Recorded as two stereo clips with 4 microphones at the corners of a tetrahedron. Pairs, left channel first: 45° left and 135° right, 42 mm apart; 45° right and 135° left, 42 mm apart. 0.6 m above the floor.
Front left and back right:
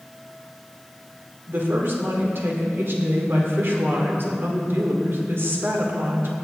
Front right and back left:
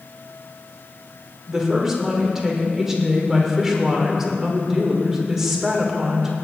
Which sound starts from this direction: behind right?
A woman speaking, at 1.5 s.